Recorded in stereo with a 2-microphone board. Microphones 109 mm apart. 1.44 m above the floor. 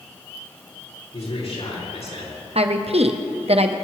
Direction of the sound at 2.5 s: 60° right (ahead or behind).